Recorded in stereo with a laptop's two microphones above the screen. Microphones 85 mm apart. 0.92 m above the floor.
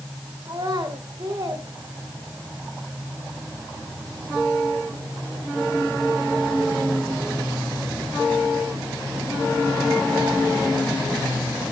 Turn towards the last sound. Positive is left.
turn(degrees=-45)  # may be behind; listen again after turning